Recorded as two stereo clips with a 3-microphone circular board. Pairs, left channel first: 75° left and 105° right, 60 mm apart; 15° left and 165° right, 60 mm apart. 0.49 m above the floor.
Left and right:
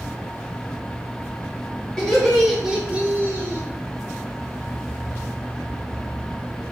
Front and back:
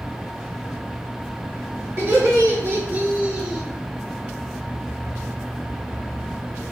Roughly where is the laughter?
Behind left.